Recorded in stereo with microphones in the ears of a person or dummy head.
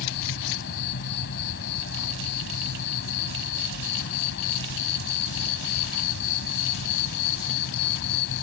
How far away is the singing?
I don't hear singing.